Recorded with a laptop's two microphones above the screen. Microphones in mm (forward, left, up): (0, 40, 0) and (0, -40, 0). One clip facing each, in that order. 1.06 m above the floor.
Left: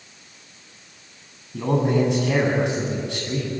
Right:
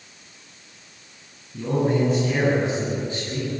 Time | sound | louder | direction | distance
1.5 | a man speaking | left 1 dB | 85° left | 9 m